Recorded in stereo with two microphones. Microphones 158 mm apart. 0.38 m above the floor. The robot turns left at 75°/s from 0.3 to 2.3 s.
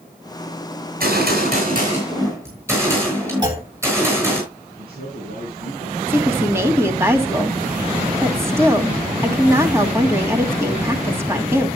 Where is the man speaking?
75° right (ahead or behind), 6 m.